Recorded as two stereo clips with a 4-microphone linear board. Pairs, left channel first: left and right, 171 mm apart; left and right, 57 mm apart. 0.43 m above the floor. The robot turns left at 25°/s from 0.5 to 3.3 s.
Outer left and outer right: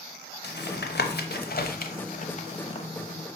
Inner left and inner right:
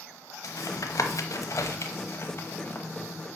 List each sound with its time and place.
0.4 s tapping: 80° left, 0.8 m; by 2.9 s 35° left (ahead or behind), 0.8 m